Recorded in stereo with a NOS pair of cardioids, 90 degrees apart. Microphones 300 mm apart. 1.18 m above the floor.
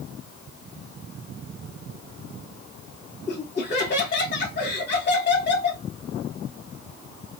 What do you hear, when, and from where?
3.3 s laughter: 30° left, 1.3 m